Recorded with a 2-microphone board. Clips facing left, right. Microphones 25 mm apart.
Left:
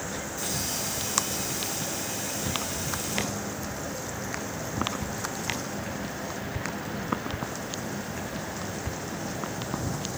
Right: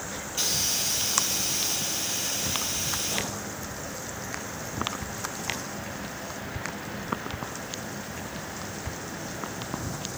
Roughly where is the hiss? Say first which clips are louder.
Right 7 dB; right.